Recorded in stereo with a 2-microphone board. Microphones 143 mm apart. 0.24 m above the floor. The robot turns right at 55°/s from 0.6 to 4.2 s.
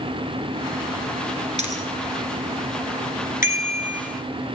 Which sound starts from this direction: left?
A bicycle bell, at 3.4 s.